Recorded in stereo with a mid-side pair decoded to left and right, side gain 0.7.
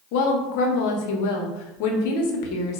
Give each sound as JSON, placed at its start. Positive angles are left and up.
{"t": 0.1, "sound": "a woman speaking", "azimuth_deg": 70, "distance_m": 1.1}